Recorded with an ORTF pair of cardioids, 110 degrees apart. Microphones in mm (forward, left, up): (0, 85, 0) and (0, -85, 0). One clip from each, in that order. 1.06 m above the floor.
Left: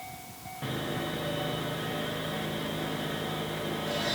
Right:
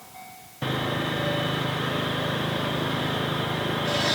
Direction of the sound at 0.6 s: 45° right.